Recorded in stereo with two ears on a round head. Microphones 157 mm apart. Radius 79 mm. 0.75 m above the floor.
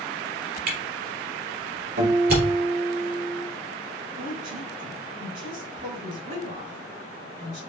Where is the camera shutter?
65° right (ahead or behind), 3 m.